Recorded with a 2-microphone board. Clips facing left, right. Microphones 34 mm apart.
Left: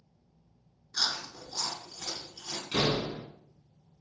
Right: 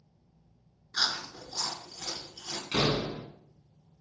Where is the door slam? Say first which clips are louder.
Right 1 dB; 40° right (ahead or behind), 0.9 m.